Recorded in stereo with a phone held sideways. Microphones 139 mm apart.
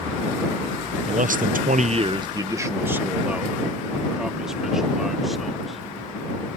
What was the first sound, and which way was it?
A man speaking, 55° right (ahead or behind).